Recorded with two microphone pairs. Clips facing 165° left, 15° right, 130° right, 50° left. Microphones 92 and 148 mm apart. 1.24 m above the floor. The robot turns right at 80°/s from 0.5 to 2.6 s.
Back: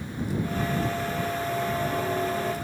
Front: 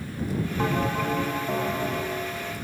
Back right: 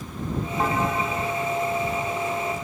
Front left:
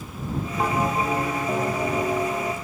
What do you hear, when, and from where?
0.6 s a bell: 40° right; by 2.5 s 115° left